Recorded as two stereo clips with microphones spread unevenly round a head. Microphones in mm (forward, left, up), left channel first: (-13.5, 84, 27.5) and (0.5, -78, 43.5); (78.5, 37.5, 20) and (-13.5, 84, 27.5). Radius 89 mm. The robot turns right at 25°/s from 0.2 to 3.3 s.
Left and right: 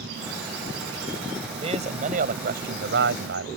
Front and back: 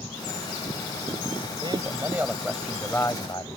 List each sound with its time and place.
1.6 s a man speaking: 140° right; by 3.5 s 100° right